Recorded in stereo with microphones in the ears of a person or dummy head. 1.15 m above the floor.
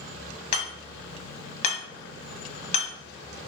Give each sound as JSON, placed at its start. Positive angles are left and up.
{"t": 0.5, "sound": "hammering", "side_deg": 35, "distance_m": 1.3}